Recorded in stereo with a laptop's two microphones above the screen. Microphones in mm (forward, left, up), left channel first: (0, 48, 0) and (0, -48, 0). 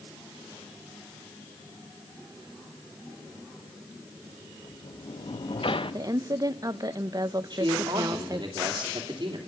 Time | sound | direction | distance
4.6 | a sliding door | 65° left (ahead or behind) | 0.5 m
5.9 | a woman speaking | 40° right (ahead or behind) | 0.6 m
7.5 | a man speaking | 40° right (ahead or behind) | 2.5 m